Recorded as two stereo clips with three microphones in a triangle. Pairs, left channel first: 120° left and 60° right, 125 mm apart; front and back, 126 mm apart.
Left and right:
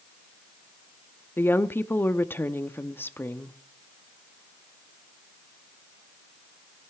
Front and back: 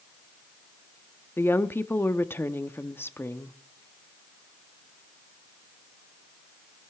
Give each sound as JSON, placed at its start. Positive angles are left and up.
{"t": 1.4, "sound": "a woman speaking", "azimuth_deg": 60, "distance_m": 0.6}